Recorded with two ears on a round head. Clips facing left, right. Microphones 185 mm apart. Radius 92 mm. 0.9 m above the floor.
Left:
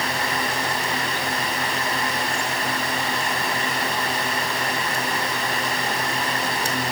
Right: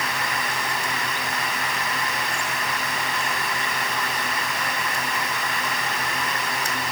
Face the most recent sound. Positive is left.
No sound to turn to.